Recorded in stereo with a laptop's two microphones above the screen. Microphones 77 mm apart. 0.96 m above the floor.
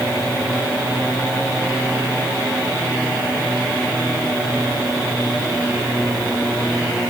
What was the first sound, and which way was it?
Only background noise.